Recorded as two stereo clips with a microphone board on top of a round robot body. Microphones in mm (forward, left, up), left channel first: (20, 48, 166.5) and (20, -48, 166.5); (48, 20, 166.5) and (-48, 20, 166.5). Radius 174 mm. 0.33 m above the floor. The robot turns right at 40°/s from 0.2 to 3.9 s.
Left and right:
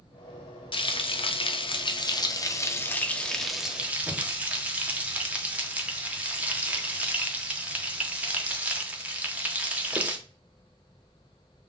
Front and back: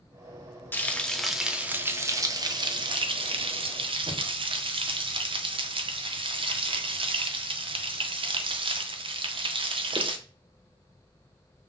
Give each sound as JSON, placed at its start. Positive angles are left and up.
{"t": 0.7, "sound": "frying", "azimuth_deg": 65, "distance_m": 0.7}